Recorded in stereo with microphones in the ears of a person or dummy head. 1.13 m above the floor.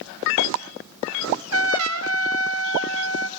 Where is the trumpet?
70° right (ahead or behind), 0.8 m.